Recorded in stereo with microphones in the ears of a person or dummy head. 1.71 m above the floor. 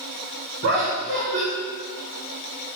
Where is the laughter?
45° right (ahead or behind), 1.3 m.